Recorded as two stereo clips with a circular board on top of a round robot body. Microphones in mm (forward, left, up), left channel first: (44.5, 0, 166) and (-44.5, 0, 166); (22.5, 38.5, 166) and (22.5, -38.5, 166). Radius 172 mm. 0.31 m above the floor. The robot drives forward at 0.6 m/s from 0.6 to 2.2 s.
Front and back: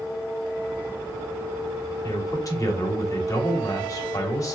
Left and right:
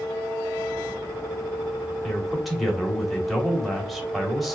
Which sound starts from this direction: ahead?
A man speaking, at 2.0 s.